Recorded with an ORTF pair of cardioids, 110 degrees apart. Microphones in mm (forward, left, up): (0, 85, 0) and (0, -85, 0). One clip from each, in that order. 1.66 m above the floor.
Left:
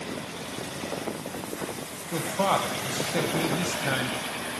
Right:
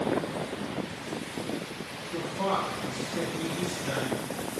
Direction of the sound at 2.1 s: 60° left.